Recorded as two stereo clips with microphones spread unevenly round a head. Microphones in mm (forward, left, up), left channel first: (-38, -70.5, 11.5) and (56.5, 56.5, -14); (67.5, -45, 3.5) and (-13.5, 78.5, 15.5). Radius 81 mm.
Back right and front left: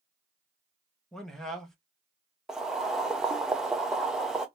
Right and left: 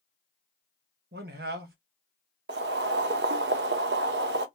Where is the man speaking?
150° left, 1.1 m.